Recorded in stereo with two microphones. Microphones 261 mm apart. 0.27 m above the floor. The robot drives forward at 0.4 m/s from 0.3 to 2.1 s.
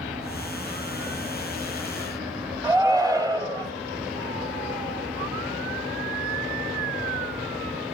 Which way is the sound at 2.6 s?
15° right (ahead or behind).